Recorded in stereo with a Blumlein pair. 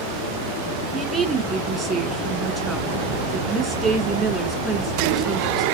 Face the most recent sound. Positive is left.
turn(degrees=-20)